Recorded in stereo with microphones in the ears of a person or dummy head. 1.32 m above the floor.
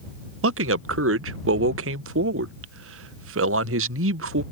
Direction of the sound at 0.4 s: 75° right (ahead or behind).